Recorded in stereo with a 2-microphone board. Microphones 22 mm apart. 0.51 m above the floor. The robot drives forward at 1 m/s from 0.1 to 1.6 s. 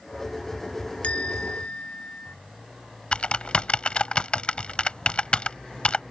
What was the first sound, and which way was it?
A bell, 75° left (ahead or behind).